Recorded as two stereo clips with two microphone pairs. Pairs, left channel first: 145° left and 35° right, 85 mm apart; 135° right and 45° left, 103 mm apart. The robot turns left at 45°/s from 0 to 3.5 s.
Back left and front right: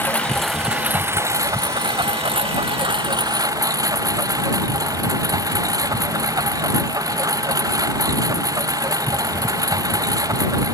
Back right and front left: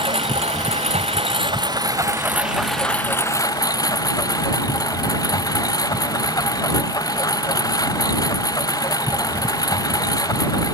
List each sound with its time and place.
0.0 s a lawn mower: 75° left; by 10.7 s 80° right